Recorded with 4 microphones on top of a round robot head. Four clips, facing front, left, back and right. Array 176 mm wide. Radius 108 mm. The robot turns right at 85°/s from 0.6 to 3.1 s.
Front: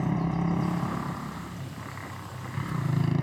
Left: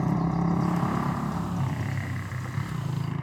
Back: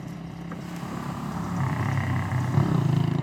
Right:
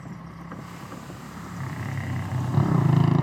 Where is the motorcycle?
60° left; by 3.2 s 85° right.